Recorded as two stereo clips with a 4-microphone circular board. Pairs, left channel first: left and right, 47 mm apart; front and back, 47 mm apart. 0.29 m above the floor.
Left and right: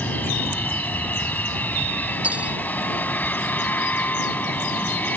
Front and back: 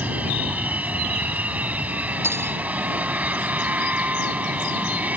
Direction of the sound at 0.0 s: 135° left.